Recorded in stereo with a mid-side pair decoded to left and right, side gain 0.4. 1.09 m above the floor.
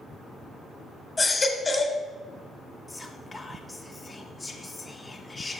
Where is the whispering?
25° left, 1.1 m.